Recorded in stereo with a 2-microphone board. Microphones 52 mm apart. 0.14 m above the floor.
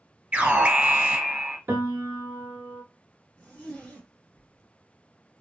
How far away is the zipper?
About 1.6 m.